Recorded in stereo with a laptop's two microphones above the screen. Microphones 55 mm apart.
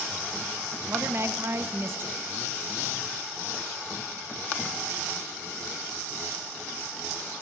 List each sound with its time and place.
0.9 s a woman speaking: 50° right (ahead or behind), 1.0 m